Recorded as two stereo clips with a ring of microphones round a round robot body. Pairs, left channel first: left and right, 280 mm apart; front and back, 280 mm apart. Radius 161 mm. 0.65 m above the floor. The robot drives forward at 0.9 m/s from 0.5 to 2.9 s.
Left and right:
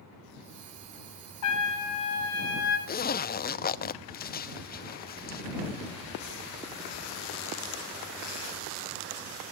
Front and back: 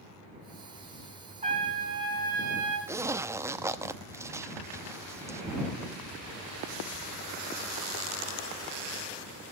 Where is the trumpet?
110° left, 5 m; by 2.8 s 125° left, 5.5 m.